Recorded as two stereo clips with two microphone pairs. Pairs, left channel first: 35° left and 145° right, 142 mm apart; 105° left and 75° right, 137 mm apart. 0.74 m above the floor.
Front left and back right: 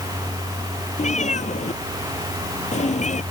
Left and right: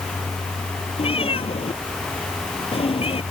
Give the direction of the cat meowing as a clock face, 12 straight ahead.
10 o'clock.